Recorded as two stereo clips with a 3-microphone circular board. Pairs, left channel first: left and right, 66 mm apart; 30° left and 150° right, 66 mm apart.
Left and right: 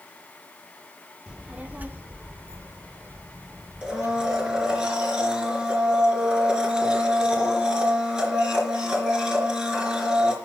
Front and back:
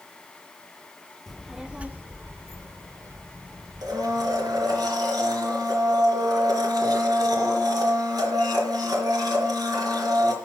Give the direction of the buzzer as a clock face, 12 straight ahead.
I don't hear a buzzer.